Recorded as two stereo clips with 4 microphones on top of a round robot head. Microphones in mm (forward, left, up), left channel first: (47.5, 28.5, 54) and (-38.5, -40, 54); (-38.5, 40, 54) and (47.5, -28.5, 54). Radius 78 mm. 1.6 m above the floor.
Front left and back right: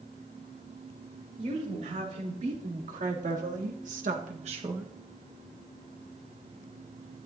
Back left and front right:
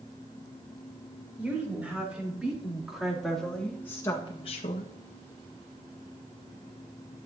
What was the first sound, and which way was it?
A woman speaking, 115° right.